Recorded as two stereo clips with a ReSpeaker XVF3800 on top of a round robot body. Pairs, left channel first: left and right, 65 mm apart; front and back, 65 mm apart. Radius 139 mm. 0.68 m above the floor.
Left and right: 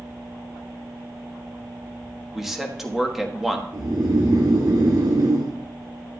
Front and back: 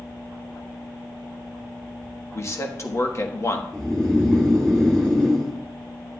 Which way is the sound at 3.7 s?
80° right.